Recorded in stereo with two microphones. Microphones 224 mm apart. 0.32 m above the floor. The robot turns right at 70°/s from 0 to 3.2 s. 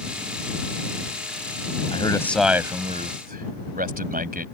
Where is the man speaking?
145° left; by 4.5 s 125° right.